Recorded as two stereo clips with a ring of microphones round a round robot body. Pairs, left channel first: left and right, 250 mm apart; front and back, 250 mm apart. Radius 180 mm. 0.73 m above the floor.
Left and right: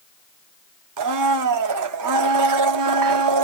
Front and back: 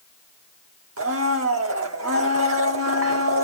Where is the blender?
125° right, 0.5 m.